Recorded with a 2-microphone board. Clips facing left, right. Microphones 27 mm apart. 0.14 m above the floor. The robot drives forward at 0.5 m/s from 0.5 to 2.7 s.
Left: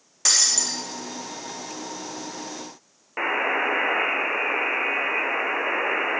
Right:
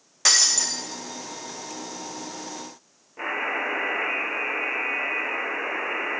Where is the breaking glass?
15° right (ahead or behind), 3.5 m.